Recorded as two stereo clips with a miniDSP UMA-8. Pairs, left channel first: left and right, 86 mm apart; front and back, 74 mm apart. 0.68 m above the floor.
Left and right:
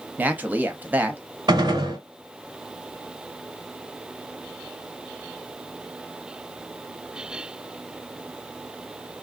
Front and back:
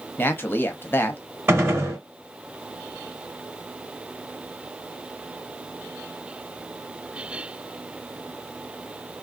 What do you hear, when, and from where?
0.2 s a man speaking: 35° right, 0.7 m
1.5 s a gunshot: 125° right, 1.3 m